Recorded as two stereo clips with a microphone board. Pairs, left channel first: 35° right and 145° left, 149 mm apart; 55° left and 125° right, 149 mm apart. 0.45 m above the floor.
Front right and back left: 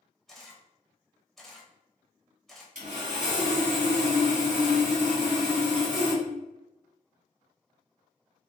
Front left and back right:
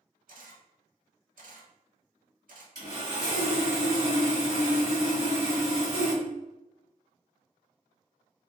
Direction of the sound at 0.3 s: 120° right.